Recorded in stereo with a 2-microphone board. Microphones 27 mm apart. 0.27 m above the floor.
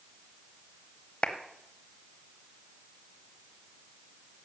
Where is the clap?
40° left (ahead or behind), 0.9 m.